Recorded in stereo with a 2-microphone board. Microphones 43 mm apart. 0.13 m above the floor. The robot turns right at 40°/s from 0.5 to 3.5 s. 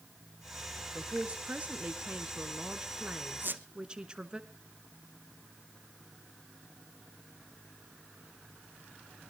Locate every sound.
0.9 s a man speaking: 140° right, 1.5 m; by 4.4 s 35° right, 1.5 m
3.4 s a squeak: 50° right (ahead or behind), 0.8 m